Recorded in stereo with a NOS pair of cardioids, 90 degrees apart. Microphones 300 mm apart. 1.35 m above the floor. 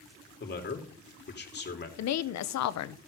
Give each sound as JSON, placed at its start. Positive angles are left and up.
{"t": 0.4, "sound": "a man speaking", "azimuth_deg": 35, "distance_m": 2.5}
{"t": 2.0, "sound": "a woman speaking", "azimuth_deg": 65, "distance_m": 0.8}